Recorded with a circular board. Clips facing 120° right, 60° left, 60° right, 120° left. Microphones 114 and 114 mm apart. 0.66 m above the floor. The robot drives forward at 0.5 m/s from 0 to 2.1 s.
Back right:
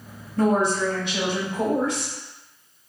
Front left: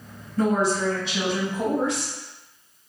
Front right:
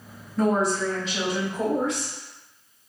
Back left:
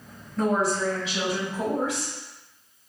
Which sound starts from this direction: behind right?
A woman speaking, at 0.4 s.